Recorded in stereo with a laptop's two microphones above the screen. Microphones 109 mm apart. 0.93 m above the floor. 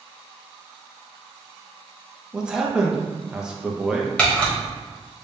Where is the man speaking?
5° right (ahead or behind), 0.7 m.